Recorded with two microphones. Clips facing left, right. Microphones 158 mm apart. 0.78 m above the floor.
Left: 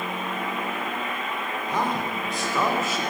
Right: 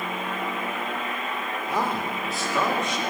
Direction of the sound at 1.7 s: 10° right (ahead or behind).